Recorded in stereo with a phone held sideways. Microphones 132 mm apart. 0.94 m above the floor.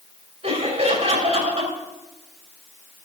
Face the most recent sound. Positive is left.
turn(degrees=-50)  # may be behind; listen again after turning